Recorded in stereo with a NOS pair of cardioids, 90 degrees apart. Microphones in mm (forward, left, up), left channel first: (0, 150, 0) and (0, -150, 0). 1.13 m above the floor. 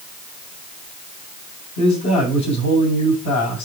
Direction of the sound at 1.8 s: 65° left.